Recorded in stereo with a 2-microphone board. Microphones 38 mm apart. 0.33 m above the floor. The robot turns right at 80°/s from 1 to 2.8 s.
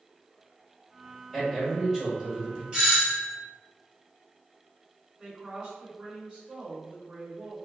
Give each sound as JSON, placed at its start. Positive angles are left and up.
{"t": 1.3, "sound": "a man speaking", "side_deg": -5, "distance_m": 1.0}
{"t": 2.7, "sound": "a doorbell", "side_deg": -20, "distance_m": 1.7}
{"t": 5.2, "sound": "a woman speaking", "side_deg": -10, "distance_m": 1.4}